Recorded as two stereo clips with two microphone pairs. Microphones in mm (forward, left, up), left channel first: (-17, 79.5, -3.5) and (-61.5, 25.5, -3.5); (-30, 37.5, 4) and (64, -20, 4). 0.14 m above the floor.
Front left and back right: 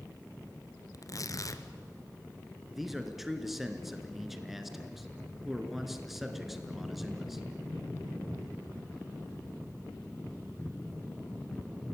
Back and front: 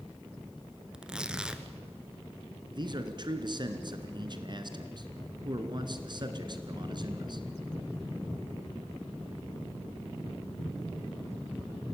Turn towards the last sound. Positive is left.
turn(degrees=-40)